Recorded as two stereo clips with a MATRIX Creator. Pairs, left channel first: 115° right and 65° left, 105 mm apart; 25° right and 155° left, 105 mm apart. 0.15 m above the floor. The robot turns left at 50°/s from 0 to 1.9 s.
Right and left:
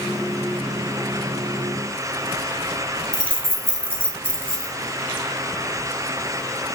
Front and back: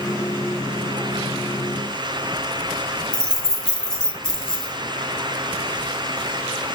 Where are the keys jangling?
45° left, 0.7 m.